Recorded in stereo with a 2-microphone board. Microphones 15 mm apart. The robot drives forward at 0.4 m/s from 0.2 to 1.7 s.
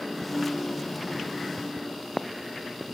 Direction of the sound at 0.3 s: 35° right (ahead or behind).